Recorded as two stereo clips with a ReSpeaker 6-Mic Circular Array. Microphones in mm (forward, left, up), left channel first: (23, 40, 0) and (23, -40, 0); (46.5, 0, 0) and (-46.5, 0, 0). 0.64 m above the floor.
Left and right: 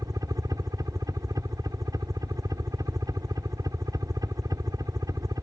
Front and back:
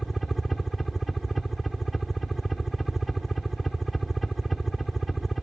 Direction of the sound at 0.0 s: 90° right.